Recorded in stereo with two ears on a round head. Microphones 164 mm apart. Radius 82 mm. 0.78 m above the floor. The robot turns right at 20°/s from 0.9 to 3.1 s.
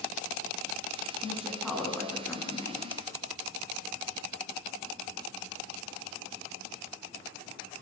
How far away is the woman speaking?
About 9 m.